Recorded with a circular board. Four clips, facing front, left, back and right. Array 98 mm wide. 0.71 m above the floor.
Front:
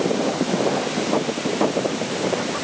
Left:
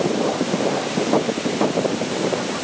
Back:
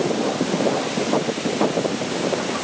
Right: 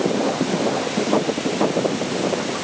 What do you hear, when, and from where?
Only background noise.